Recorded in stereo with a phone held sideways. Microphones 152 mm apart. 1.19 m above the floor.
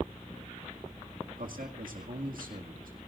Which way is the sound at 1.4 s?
75° right (ahead or behind).